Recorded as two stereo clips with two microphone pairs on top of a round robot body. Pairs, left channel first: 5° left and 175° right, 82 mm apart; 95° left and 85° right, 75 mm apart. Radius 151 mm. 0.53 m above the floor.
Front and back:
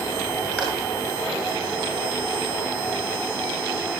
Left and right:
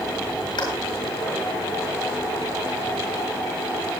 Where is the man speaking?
No man speaking in this recording.